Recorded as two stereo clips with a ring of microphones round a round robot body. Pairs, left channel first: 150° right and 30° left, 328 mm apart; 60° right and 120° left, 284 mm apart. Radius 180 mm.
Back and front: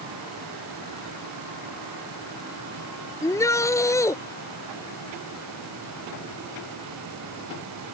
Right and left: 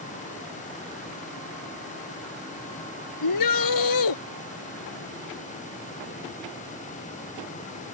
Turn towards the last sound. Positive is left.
turn(degrees=-70)